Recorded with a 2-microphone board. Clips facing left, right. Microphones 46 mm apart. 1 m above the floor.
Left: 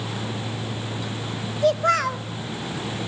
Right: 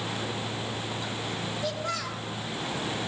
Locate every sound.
1.6 s a child speaking: 55° left (ahead or behind), 1.2 m